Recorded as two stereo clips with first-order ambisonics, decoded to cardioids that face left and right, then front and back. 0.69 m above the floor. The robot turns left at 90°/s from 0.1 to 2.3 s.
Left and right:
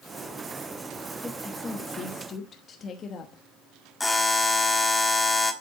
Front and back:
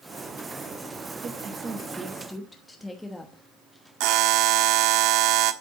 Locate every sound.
1.2 s a woman speaking: 175° left, 1.0 m; by 3.4 s 80° left, 1.0 m
4.0 s a buzzer: 170° left, 1.2 m